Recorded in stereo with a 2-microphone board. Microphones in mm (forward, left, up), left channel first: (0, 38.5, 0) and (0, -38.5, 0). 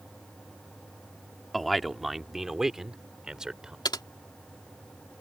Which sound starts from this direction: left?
Typing on a keyboard, at 3.9 s.